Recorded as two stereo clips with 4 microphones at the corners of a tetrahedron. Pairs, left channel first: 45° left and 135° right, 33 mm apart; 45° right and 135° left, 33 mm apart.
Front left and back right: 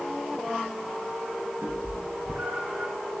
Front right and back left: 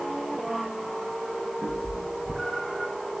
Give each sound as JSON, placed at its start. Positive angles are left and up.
{"t": 1.6, "sound": "a cat meowing", "azimuth_deg": -140, "distance_m": 4.0}